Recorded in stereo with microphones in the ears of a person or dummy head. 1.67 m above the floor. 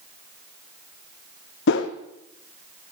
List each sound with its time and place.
1.7 s a whoosh: 65° left (ahead or behind), 1.1 m